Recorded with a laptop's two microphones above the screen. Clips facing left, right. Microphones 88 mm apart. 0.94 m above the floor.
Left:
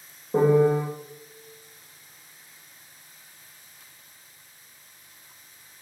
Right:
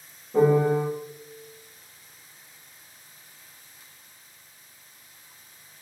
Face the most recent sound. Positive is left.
turn(degrees=70)  # may be behind; listen again after turning